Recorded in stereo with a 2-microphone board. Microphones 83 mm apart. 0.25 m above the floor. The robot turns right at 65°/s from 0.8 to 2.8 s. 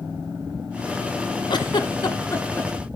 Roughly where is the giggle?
Left.